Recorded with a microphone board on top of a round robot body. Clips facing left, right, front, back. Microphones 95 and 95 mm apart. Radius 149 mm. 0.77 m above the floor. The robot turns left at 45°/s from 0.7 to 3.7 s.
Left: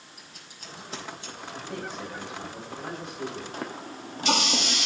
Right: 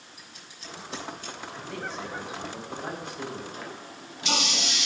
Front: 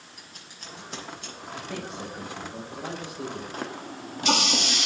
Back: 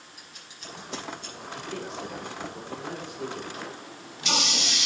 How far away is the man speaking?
About 5.5 m.